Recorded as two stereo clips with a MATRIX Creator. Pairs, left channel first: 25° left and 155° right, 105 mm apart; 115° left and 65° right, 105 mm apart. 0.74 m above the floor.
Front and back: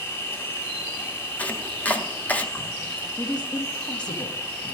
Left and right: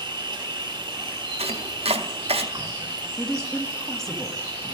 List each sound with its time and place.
0.0 s an insect: 40° right, 1.0 m
1.4 s chopping: 55° right, 0.6 m
3.2 s a woman speaking: 30° left, 1.2 m